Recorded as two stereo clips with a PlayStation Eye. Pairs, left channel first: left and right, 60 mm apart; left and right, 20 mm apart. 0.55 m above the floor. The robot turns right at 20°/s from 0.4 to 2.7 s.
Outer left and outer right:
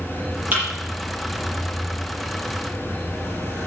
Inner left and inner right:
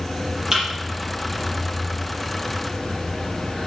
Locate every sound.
0.5 s a thud: 30° right (ahead or behind), 5.5 m